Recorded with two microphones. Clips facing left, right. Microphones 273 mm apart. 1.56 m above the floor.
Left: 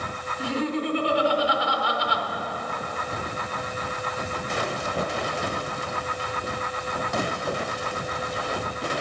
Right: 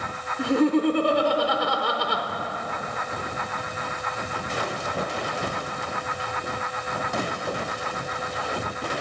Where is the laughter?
60° right (ahead or behind), 0.8 m.